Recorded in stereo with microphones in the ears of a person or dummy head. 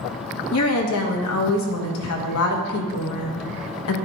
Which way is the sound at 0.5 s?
85° left.